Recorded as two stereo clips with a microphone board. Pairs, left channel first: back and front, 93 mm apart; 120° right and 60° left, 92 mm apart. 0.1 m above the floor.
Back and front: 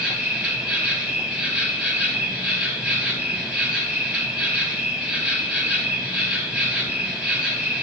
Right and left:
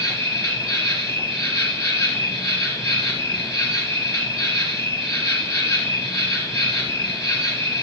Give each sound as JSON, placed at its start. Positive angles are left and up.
{"t": 0.0, "sound": "an insect", "azimuth_deg": -75, "distance_m": 2.0}